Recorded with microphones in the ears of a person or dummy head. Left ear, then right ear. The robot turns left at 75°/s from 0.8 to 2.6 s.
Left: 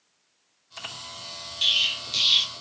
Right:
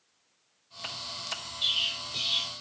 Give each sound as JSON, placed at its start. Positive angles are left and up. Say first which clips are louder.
{"t": 1.6, "sound": "an explosion", "louder": "left 6 dB", "azimuth_deg": 105, "distance_m": 0.7}